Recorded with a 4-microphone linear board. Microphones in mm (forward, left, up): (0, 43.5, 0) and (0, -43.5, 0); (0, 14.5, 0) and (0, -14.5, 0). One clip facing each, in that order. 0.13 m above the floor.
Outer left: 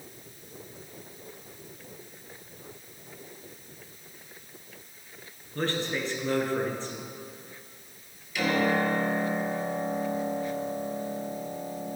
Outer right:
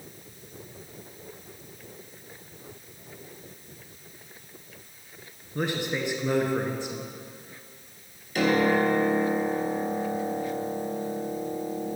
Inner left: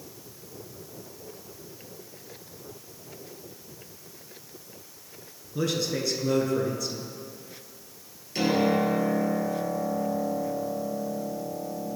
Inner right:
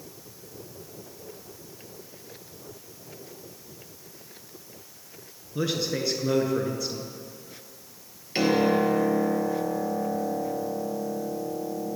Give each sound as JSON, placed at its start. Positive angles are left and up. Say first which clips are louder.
{"t": 5.5, "sound": "a man speaking", "louder": "outer right 1 dB, even", "side_deg": -15, "distance_m": 1.5}
{"t": 8.3, "sound": "a piano", "louder": "outer right 3 dB, inner right 2 dB", "side_deg": -45, "distance_m": 2.5}